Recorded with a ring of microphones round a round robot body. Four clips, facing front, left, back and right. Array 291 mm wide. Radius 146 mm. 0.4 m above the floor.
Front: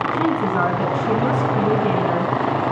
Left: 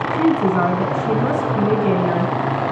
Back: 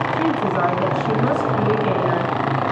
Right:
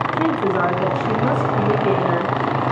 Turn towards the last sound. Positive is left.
turn(degrees=80)